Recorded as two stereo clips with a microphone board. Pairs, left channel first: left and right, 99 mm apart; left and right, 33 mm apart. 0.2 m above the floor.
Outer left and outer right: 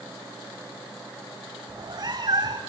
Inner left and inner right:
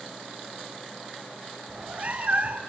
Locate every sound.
1.7 s a cat meowing: 45° right (ahead or behind), 2.0 m